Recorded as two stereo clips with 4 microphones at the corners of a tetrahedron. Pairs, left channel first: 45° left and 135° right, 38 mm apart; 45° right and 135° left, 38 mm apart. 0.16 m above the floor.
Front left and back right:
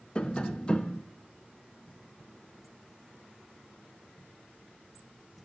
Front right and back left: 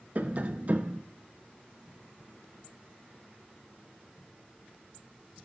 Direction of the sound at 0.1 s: 105° left.